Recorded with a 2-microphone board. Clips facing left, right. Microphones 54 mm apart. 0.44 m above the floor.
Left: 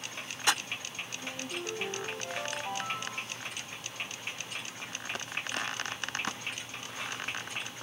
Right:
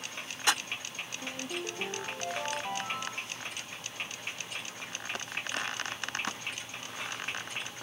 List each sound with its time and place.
1.2 s a ringtone: 75° right (ahead or behind), 4.5 m